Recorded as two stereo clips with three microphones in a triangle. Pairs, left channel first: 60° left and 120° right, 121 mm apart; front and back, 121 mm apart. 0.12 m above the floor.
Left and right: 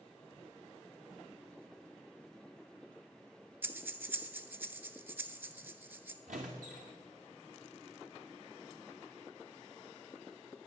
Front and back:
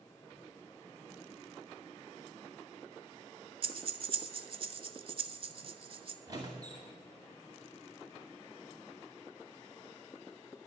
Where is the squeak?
120° right, 2 m.